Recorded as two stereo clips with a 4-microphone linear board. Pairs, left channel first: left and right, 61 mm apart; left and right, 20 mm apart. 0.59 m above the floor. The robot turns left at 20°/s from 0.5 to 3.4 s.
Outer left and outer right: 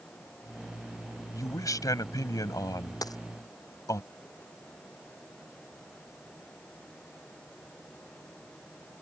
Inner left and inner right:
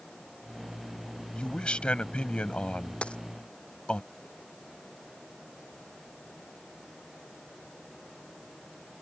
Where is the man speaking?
110° left; by 4.0 s 70° left.